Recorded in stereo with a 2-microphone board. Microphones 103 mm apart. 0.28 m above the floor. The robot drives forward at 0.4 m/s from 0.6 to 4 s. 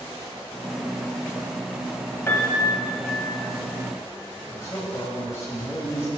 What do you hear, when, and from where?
2.3 s a piano: 25° left (ahead or behind), 0.8 m; by 3.2 s 20° left (ahead or behind), 1.1 m
4.5 s a man speaking: 25° left (ahead or behind), 1.1 m